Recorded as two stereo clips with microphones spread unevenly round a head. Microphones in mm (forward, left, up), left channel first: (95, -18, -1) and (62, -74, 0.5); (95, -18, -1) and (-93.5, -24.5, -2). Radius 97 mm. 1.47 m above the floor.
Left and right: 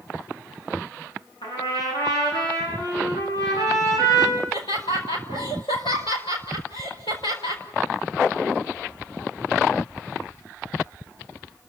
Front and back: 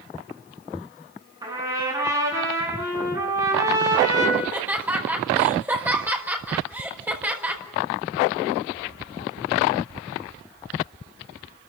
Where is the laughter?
100° left, 5 m.